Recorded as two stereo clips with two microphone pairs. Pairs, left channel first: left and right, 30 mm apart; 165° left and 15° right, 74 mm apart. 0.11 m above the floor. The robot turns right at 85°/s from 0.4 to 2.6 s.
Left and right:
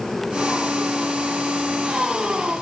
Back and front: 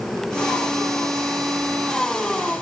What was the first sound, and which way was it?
Only background noise.